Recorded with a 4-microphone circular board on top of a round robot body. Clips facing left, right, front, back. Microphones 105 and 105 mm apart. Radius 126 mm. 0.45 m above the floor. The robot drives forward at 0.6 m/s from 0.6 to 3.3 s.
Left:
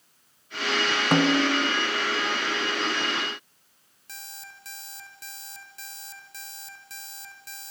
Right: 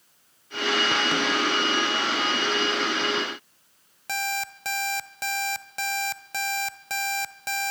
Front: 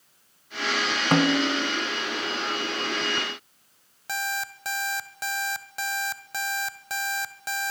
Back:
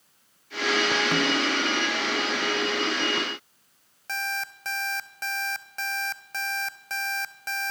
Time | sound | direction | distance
1.1 | a snare drum | 45° left | 0.7 m
4.1 | an alarm clock | 80° right | 1.9 m